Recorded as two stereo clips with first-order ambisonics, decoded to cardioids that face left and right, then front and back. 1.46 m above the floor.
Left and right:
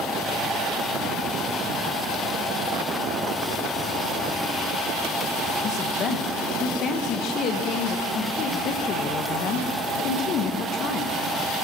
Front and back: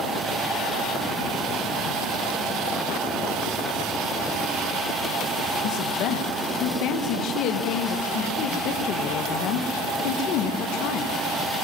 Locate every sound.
5.6 s a woman speaking: 35° left, 1.4 m